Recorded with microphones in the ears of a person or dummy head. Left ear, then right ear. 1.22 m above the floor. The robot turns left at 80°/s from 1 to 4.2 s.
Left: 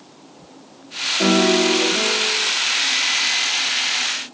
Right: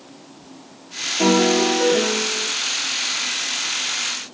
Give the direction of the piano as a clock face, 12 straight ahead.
12 o'clock.